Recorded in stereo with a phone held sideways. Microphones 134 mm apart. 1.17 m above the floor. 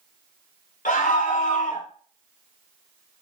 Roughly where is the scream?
Left.